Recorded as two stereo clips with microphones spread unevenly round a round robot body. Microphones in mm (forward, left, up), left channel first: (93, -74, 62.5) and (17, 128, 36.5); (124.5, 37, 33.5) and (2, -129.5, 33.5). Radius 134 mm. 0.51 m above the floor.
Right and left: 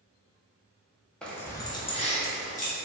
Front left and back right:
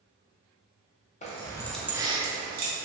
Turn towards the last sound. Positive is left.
turn(degrees=-120)